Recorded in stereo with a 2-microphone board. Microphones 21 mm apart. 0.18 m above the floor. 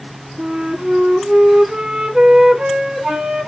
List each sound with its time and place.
0.4 s a flute: 45° right (ahead or behind), 0.9 m